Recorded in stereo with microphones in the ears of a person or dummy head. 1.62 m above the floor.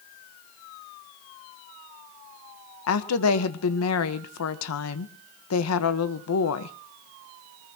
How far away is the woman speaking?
About 1.2 m.